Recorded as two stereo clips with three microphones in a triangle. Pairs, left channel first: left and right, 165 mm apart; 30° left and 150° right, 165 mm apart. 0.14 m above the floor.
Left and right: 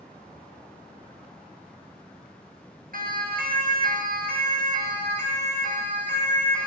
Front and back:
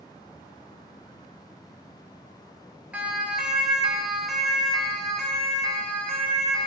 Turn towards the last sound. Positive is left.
turn(degrees=-55)